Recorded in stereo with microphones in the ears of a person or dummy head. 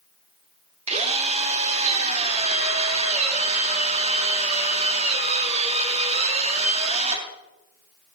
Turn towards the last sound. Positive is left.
turn(degrees=-35)  # may be behind; listen again after turning